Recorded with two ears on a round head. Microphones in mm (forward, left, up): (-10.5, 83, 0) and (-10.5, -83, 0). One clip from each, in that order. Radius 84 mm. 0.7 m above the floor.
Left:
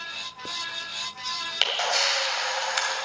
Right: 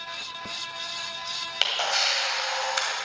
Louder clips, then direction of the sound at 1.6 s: Even; centre (ahead or behind).